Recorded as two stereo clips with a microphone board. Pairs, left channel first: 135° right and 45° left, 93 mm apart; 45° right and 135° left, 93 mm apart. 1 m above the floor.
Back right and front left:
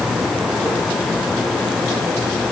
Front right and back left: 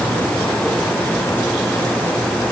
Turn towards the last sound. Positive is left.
No sound to turn to.